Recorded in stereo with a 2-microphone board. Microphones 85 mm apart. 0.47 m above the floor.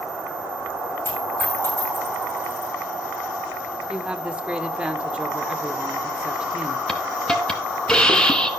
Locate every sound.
1.1 s a dropped coin: 30° left (ahead or behind), 7.5 m
3.9 s a woman speaking: 10° right (ahead or behind), 1.3 m
6.9 s a hiss: 10° left (ahead or behind), 1.6 m